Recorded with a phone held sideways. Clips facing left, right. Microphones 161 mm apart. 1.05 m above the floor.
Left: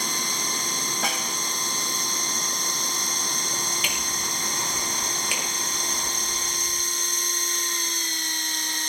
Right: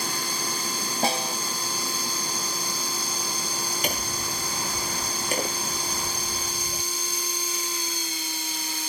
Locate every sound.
0.0 s a machine running: 5° right (ahead or behind)
1.0 s a snare drum: 30° right (ahead or behind)
3.8 s hammering: 40° right (ahead or behind)